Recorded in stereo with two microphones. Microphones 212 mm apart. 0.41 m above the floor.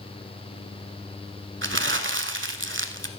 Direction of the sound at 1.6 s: 65° right (ahead or behind).